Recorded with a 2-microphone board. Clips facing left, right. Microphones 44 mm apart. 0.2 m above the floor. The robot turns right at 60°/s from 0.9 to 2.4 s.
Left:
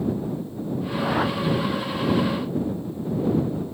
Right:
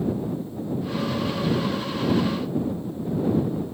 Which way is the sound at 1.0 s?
85° left.